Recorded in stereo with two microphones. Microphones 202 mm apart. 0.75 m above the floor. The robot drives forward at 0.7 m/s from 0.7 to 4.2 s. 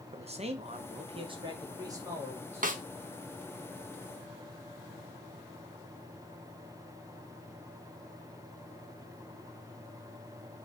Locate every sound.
0.1 s a man speaking: 30° right (ahead or behind), 0.6 m; by 2.7 s 10° right (ahead or behind), 1.5 m
2.6 s a snare drum: 45° right (ahead or behind), 0.5 m; by 2.8 s 40° right (ahead or behind), 0.6 m